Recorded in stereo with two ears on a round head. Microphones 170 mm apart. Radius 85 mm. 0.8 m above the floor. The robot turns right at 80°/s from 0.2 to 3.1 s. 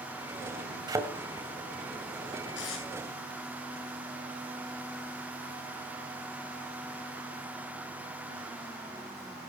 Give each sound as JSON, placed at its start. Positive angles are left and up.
{"t": 0.9, "sound": "a thud", "side_deg": -20, "distance_m": 2.0}
{"t": 2.5, "sound": "tape being pulled", "side_deg": 65, "distance_m": 9.5}